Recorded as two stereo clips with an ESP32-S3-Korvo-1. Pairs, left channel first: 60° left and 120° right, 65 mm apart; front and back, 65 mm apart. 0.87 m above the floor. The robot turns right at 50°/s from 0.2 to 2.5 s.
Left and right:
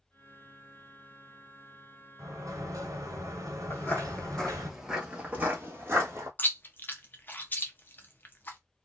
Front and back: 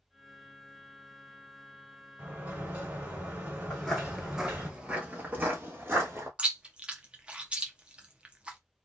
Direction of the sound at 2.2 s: 135° right.